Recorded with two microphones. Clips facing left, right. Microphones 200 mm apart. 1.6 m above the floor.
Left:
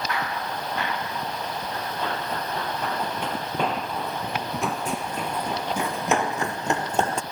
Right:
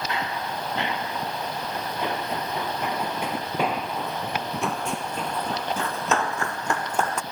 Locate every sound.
0.1 s running footsteps: 25° right (ahead or behind); by 7.2 s 30° left (ahead or behind)